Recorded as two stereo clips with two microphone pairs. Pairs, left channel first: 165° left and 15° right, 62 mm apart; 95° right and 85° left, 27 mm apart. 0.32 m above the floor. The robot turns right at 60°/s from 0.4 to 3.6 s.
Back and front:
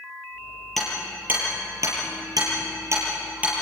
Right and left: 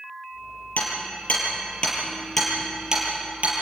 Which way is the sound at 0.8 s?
110° right.